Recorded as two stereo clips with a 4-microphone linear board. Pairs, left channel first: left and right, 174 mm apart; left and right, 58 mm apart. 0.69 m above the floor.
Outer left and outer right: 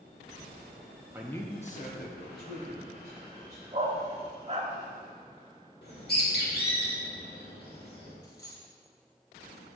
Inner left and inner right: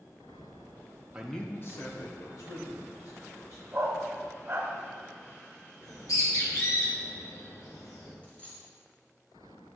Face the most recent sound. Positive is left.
turn(degrees=20)  # may be behind; listen again after turning